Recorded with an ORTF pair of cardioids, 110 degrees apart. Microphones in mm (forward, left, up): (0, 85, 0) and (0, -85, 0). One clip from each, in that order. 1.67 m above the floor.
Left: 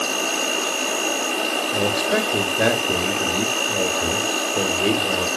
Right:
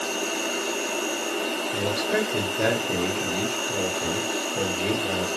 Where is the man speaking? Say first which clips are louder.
Left 3 dB; 35° left, 1.0 m.